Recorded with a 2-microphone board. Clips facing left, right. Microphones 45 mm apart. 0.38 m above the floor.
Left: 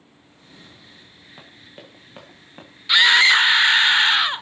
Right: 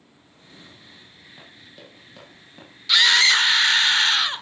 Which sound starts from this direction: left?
Running footsteps, at 1.4 s.